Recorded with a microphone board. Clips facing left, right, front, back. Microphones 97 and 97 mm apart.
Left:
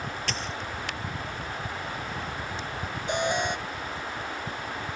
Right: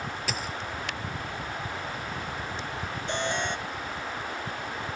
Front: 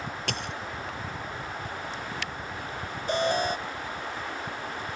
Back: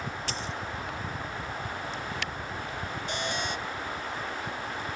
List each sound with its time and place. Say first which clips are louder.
0.3 s a dropped coin: even, front 1 dB; 10° right
3.1 s an alarm: left 3 dB, front 9 dB; 20° left